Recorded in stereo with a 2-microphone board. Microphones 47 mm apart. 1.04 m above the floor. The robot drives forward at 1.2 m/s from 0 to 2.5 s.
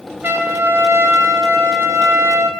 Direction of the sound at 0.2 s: 45° right (ahead or behind).